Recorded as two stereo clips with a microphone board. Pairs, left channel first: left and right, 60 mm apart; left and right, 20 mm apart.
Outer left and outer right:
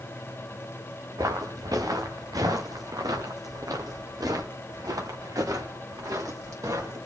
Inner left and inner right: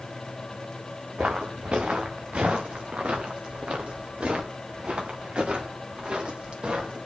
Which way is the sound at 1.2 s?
70° right (ahead or behind).